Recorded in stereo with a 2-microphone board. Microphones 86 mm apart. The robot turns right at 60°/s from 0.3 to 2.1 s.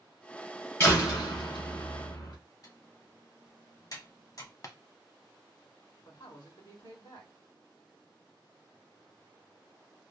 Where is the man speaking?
55° left (ahead or behind), 2.5 m.